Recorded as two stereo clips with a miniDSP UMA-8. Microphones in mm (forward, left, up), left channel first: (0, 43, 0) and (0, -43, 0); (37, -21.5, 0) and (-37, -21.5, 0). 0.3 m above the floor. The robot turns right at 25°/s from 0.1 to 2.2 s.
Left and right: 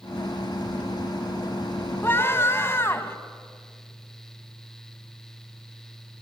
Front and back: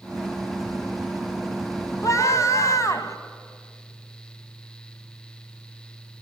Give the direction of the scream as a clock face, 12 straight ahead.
11 o'clock.